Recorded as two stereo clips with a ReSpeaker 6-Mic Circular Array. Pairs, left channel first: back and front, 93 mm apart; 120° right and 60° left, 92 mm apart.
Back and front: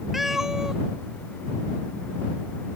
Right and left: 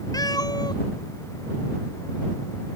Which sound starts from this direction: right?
A cat meowing, at 0.1 s.